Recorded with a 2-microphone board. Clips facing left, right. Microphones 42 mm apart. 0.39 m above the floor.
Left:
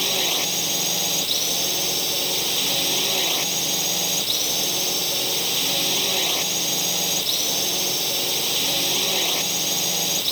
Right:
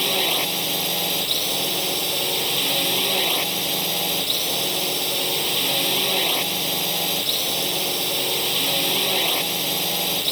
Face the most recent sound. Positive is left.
turn(degrees=-10)  # may be behind; listen again after turning